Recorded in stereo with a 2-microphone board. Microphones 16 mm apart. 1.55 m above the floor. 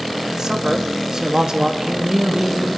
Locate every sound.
0.3 s a man speaking: 35° right (ahead or behind), 2.5 m